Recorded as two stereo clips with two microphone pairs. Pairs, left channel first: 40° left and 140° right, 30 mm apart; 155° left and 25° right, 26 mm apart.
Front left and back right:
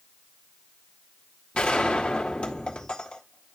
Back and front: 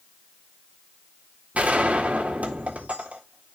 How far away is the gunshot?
About 1.8 m.